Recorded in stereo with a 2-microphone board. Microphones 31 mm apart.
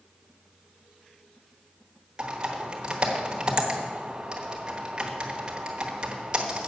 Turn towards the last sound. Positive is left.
turn(degrees=-25)  # may be behind; listen again after turning